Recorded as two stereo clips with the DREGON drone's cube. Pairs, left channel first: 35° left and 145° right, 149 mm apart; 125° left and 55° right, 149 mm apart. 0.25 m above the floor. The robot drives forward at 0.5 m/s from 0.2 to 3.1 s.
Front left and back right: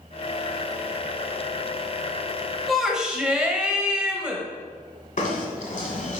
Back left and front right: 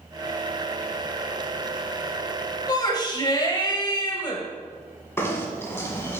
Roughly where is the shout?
Behind left.